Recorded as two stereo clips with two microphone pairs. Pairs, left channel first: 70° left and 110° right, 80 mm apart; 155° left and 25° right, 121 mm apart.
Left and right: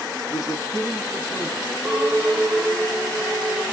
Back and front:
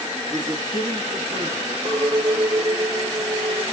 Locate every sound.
0.3 s a man speaking: 40° left, 1.1 m; by 1.8 s 10° right, 2.5 m
1.9 s a clink: 20° right, 2 m